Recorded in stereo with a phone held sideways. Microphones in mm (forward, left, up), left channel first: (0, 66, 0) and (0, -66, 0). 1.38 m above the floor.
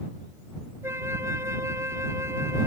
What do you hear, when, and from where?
0.8 s a flute: 20° right (ahead or behind)